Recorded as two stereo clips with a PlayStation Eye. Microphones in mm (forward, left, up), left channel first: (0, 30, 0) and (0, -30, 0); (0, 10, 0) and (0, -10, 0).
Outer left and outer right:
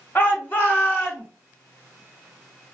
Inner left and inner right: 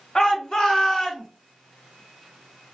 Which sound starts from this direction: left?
A shout, at 0.1 s.